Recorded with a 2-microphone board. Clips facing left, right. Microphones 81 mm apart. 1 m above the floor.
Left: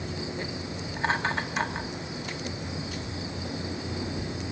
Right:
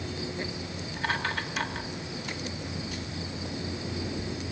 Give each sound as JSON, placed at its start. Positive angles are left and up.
{"t": 1.0, "sound": "laughter", "side_deg": 25, "distance_m": 1.8}